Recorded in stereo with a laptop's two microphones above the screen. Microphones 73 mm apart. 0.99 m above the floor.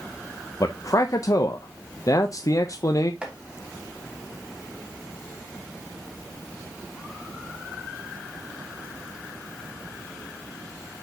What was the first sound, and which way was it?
A man speaking, 50° left (ahead or behind).